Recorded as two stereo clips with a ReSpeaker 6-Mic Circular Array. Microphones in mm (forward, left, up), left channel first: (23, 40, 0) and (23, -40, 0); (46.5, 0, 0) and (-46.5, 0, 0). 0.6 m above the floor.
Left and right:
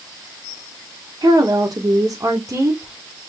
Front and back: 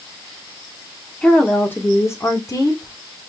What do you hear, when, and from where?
1.2 s a woman speaking: 80° right, 1.1 m; by 2.9 s 40° right, 1.5 m